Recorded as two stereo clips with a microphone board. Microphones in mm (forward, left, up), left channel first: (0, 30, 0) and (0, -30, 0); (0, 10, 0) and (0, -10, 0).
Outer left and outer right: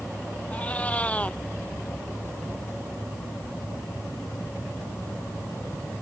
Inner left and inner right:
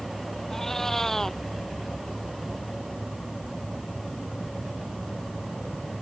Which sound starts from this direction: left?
A cat meowing, at 0.5 s.